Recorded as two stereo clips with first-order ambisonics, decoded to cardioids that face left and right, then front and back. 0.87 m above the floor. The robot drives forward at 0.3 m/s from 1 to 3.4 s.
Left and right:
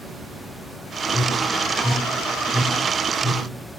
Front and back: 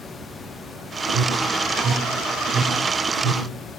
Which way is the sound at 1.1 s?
165° left.